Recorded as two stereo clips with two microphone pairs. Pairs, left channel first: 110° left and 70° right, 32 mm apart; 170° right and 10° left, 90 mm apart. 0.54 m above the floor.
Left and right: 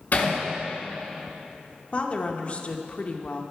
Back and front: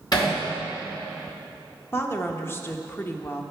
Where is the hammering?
145° left, 4 m.